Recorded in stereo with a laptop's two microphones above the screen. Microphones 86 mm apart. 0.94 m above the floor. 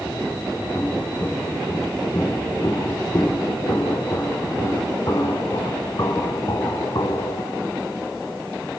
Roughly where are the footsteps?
Left.